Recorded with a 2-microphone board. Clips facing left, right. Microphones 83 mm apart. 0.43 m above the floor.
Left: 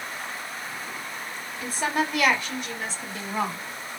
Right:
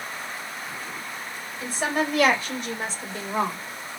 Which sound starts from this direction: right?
A woman speaking, at 1.6 s.